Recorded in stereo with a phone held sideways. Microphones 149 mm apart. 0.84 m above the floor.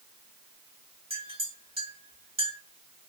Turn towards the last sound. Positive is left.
turn(degrees=-40)  # may be behind; listen again after turning